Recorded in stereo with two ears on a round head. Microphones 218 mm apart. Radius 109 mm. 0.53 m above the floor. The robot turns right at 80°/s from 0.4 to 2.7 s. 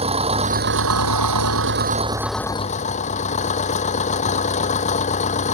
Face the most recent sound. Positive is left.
turn(degrees=30)